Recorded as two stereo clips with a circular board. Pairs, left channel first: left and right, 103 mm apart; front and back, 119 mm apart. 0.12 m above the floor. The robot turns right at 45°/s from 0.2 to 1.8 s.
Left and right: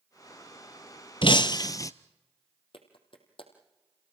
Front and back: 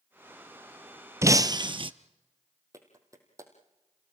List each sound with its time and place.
1.2 s breaking glass: 115° left, 0.7 m; by 1.9 s 140° left, 0.7 m
2.7 s a clap: 120° left, 3.5 m